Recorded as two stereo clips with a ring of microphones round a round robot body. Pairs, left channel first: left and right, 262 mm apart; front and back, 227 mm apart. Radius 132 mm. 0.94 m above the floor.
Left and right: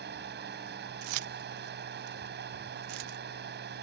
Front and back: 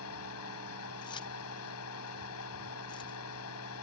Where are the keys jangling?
75° right.